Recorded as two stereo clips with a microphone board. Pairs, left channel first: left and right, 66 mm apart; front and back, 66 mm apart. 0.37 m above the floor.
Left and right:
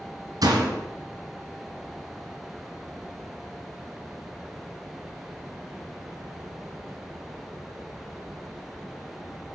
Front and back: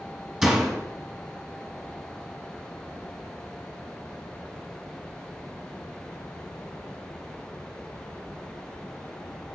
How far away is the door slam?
About 2.0 m.